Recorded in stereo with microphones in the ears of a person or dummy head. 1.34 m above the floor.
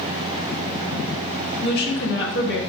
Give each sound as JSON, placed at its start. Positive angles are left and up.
{"t": 1.6, "sound": "a woman speaking", "side_deg": 60, "distance_m": 1.6}